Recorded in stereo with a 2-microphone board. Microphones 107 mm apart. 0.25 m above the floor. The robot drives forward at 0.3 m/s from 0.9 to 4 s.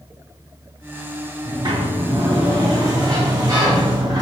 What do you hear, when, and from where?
1.4 s a sliding door: 45° right (ahead or behind), 2 m; by 4.2 s 40° right (ahead or behind), 2.5 m